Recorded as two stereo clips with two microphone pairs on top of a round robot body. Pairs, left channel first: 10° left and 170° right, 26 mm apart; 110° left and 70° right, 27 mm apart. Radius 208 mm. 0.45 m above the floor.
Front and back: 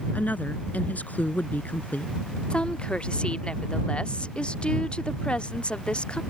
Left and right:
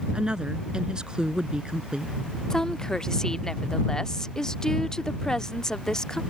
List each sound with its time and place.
0.1 s a woman speaking: 15° right
2.5 s a woman speaking: 45° left